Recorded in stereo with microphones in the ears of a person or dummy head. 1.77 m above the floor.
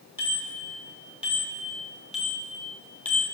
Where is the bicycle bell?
15° right (ahead or behind), 3.5 m; by 3.2 s 5° left (ahead or behind), 2 m.